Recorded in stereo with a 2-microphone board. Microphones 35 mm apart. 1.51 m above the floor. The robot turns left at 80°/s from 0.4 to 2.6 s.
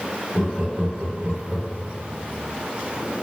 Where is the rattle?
No rattle in this recording.